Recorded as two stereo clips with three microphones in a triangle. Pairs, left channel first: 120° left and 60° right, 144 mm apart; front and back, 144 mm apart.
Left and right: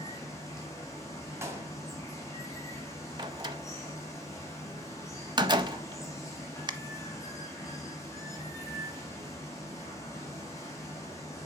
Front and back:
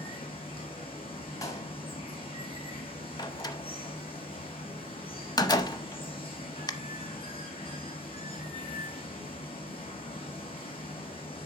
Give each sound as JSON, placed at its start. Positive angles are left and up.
{"t": 0.0, "sound": "running water", "azimuth_deg": 50, "distance_m": 2.0}
{"t": 1.4, "sound": "a clap", "azimuth_deg": -15, "distance_m": 1.3}
{"t": 3.2, "sound": "a door slam", "azimuth_deg": -35, "distance_m": 0.7}